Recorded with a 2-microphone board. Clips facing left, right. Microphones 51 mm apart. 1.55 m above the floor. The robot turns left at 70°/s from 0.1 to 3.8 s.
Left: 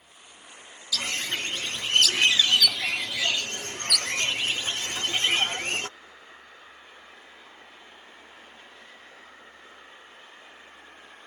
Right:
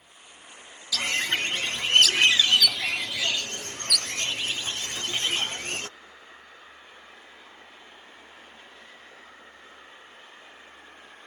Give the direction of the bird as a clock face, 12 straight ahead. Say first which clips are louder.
Right 3 dB; 2 o'clock.